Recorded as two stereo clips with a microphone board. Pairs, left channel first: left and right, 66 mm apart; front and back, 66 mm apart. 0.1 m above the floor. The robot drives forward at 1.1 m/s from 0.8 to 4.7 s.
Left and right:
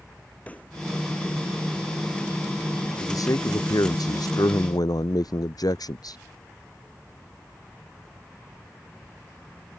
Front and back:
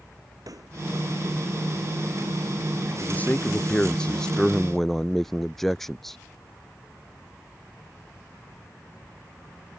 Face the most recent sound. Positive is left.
turn(degrees=85)